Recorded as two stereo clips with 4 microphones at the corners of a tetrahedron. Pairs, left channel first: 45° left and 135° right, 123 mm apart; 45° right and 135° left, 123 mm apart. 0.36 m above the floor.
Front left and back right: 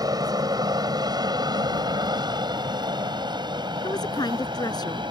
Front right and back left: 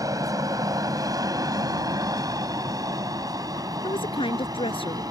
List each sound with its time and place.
0.0 s an aircraft: 175° right
3.8 s a woman speaking: 5° right